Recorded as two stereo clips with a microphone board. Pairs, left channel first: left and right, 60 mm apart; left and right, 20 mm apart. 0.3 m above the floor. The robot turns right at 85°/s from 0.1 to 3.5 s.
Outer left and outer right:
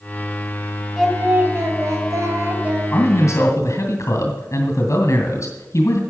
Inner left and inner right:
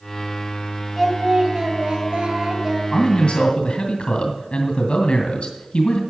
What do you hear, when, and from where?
1.0 s singing: 175° left, 2 m; by 2.8 s 25° right, 2 m
2.9 s a man speaking: 50° left, 2.5 m; by 6.0 s 100° left, 2.5 m